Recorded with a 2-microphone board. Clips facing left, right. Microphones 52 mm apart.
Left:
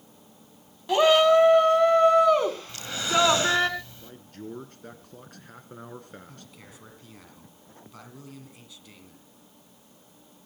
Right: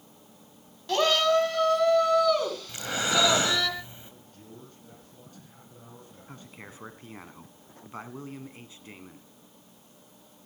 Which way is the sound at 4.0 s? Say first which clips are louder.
Left 9 dB; 70° left (ahead or behind).